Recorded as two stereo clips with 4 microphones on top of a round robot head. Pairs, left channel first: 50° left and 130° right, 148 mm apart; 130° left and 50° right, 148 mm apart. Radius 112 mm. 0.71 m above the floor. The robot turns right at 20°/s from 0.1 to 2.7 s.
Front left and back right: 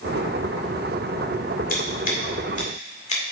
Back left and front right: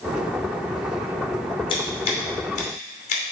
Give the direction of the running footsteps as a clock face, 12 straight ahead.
No running footsteps in this recording.